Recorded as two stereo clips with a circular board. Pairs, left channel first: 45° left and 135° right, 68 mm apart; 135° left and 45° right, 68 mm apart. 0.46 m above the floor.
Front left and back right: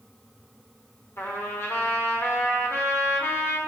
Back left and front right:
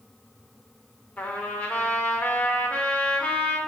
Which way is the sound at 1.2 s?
75° left.